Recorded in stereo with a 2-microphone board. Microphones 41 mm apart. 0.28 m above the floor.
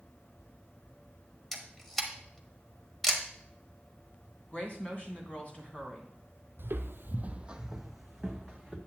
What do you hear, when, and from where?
1.5 s a camera shutter: 5° left (ahead or behind), 1.1 m
4.5 s a woman speaking: 40° left (ahead or behind), 2.5 m
6.6 s footsteps: 65° right (ahead or behind), 0.7 m; by 8.8 s 10° left (ahead or behind), 1.8 m